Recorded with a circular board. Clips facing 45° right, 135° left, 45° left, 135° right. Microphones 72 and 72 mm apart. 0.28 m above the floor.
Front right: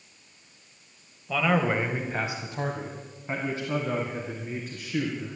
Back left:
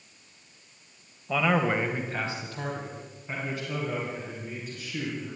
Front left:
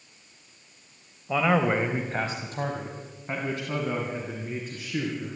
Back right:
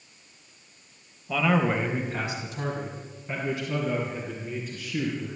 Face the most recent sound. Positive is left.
turn(degrees=5)